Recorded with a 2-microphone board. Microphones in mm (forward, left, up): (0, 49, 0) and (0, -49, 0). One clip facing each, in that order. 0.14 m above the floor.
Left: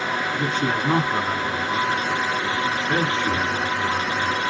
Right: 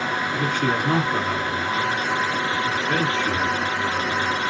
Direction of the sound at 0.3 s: 30° left (ahead or behind).